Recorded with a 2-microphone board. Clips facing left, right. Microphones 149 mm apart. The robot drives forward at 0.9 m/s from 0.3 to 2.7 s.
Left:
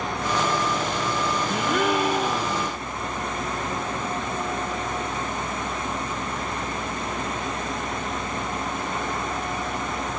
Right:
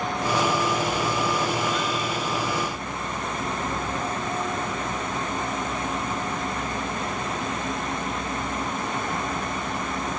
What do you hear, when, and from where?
1.5 s a gasp: 65° left (ahead or behind); by 2.8 s 85° left